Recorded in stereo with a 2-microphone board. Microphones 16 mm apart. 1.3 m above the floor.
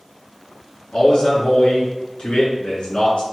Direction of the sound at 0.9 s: 75° left (ahead or behind).